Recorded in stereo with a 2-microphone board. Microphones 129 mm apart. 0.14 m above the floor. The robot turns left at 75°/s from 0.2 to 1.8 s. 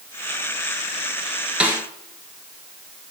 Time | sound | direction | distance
1.6 | a snare drum | 10° right (ahead or behind) | 1.4 m